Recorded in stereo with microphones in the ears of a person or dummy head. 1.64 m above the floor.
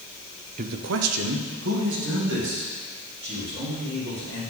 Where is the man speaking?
40° right (ahead or behind), 0.7 m; by 4.4 s 55° right (ahead or behind), 5 m.